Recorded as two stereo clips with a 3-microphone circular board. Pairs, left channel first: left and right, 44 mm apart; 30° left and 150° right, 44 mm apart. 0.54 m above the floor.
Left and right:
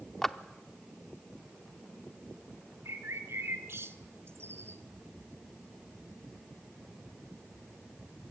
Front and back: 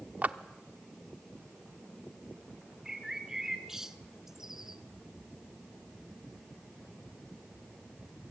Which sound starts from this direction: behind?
A clap, at 0.2 s.